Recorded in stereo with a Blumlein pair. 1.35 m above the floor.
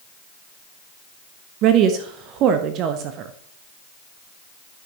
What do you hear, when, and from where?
1.6 s a woman speaking: 35° right, 0.8 m